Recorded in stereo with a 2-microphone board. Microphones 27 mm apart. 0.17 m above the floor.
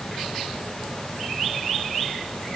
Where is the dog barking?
I don't hear a dog barking.